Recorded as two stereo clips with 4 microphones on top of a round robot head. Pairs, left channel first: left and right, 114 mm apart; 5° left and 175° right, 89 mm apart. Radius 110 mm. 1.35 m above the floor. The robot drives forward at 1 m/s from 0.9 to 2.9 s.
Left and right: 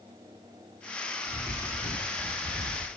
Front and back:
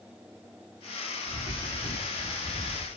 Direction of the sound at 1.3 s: 20° right.